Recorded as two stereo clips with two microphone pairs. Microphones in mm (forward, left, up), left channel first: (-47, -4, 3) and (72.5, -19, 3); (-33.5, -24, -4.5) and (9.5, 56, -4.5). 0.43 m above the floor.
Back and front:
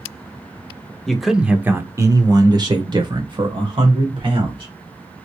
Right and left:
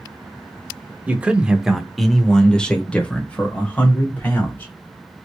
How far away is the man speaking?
About 0.8 m.